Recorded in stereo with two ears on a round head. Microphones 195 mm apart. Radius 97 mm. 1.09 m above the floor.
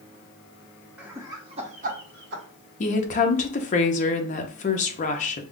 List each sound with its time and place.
1.0 s laughter: 5° right (ahead or behind), 0.9 m; by 2.4 s 55° right (ahead or behind), 1.1 m
2.8 s a woman speaking: 35° left (ahead or behind), 0.6 m